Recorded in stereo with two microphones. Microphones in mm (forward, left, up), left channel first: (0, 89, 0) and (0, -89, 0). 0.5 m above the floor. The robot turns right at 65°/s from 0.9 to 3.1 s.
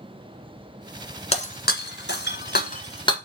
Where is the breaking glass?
35° left (ahead or behind), 1.5 m; by 3.2 s 30° left (ahead or behind), 1.5 m.